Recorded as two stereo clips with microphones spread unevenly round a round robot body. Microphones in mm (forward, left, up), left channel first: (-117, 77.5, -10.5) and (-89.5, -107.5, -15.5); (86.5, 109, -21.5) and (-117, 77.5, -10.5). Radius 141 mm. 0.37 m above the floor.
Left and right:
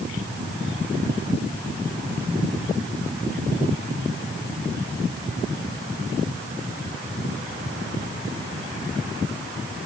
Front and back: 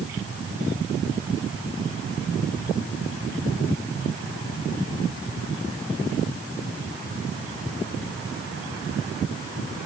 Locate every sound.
Only background noise.